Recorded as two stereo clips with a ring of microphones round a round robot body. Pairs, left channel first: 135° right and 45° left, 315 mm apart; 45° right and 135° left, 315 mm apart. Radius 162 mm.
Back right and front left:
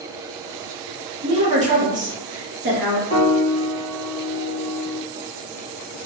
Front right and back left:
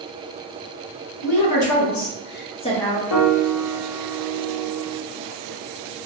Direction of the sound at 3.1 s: 70° right.